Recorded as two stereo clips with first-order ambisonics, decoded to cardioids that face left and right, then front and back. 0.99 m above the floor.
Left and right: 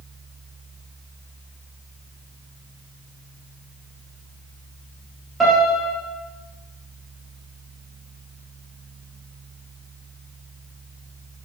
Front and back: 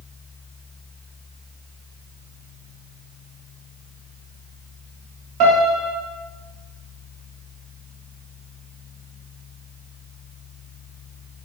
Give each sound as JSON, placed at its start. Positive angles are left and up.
{"t": 5.4, "sound": "a piano", "azimuth_deg": -170, "distance_m": 1.1}